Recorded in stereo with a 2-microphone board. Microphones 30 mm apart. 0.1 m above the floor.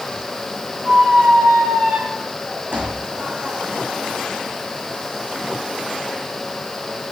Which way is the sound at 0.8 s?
45° right (ahead or behind).